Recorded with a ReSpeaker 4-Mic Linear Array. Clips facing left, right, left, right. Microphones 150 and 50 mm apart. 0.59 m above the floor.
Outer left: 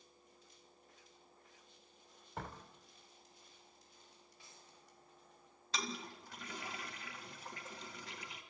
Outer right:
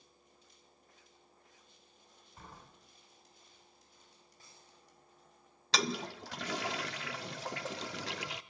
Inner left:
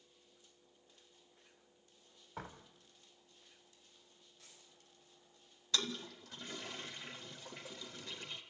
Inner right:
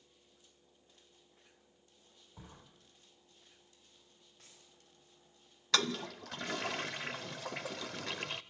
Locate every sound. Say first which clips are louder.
2.4 s a door slam: outer left 7 dB, inner left 7 dB; 75° left (ahead or behind), 2.5 m
4.4 s a dropped coin: outer right 1 dB, inner right 1 dB; 40° right (ahead or behind), 7.5 m
5.7 s a toilet flushing: outer right 8 dB, inner right 6 dB; 85° right, 0.6 m